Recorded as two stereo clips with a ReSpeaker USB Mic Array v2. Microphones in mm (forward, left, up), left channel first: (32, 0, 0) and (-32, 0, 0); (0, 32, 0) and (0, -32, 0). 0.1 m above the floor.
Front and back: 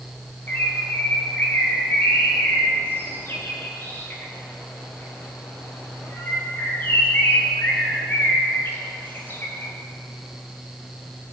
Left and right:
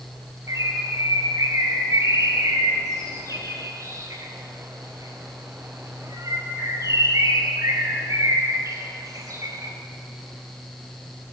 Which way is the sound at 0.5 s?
55° right.